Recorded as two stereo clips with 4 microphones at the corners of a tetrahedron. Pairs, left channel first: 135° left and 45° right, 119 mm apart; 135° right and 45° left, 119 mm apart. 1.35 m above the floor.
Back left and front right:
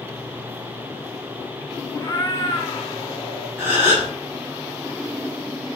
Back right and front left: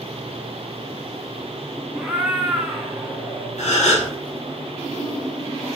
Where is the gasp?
115° right, 3.5 m.